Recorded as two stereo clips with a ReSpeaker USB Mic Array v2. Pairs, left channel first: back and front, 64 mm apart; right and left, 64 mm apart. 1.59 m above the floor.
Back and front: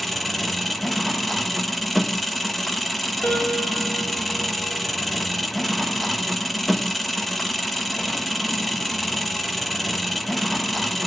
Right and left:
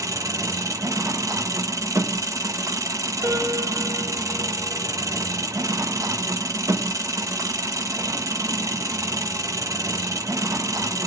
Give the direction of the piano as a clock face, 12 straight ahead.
8 o'clock.